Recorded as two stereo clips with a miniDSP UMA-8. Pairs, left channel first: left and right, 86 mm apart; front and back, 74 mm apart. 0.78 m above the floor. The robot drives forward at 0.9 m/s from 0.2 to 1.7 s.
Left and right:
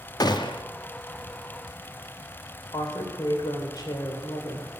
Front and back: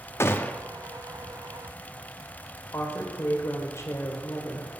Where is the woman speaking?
55° left, 2.5 m.